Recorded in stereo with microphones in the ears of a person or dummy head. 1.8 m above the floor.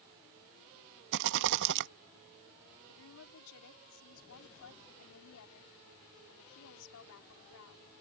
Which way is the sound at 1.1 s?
55° right (ahead or behind).